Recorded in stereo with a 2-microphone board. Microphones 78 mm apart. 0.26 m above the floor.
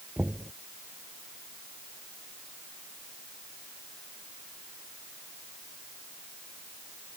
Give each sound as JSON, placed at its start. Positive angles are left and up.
{"t": 0.2, "sound": "knocking", "side_deg": -20}